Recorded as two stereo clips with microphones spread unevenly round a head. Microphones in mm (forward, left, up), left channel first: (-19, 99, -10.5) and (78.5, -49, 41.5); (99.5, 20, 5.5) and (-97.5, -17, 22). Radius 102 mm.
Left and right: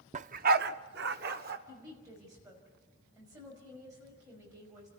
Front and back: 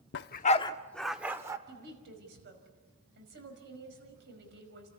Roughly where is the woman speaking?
Behind right.